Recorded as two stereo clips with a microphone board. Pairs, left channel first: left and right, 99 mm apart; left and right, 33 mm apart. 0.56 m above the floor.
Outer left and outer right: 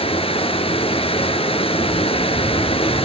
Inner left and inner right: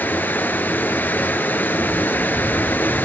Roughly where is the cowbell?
No cowbell in this recording.